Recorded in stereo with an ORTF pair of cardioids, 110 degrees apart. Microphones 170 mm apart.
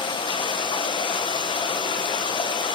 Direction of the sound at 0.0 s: 30° left.